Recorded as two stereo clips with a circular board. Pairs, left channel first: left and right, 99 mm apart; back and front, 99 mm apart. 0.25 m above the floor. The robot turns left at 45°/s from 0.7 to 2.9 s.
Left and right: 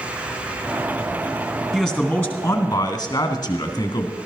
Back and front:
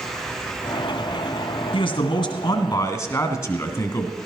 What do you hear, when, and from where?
1.7 s a man speaking: 175° right, 2.0 m; by 4.1 s 130° left, 2.0 m